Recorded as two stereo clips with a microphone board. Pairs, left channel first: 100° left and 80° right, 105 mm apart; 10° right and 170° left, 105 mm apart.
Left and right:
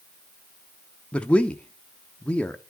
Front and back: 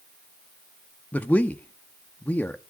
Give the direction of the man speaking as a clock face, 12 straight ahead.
11 o'clock.